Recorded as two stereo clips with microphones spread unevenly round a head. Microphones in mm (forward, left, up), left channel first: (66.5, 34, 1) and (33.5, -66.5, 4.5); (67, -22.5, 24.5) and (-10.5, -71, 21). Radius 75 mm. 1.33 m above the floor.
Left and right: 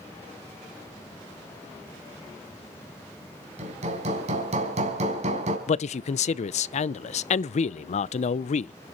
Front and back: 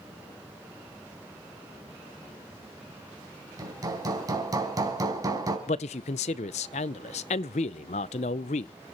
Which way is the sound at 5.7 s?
55° left.